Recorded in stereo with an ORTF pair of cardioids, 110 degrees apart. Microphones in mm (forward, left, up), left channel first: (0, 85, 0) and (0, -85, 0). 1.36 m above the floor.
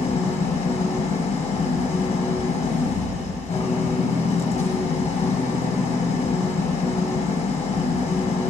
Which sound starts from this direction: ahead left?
An engine running, at 0.0 s.